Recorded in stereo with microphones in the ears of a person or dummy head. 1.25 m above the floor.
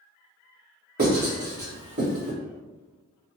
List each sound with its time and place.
1.0 s writing: 50° right (ahead or behind), 1.8 m